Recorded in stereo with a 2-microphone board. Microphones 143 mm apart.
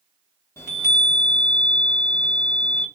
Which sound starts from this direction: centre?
A chime, at 0.6 s.